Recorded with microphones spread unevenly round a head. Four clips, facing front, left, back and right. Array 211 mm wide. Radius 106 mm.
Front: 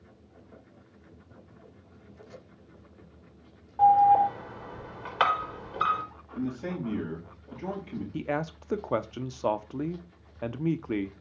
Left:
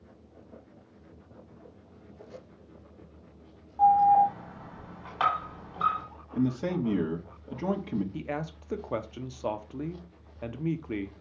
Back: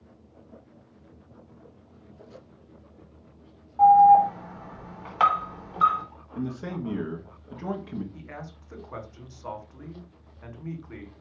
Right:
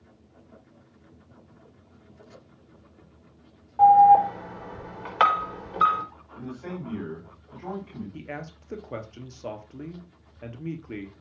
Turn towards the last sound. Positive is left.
turn(degrees=15)